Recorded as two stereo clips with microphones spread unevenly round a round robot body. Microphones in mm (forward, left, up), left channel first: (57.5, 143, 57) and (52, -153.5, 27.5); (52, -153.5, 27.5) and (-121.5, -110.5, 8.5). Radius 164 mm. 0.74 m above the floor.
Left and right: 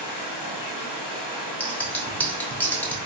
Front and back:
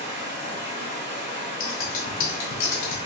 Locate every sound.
0.0 s running water: 95° left, 1.4 m
1.6 s scissors: 5° left, 0.9 m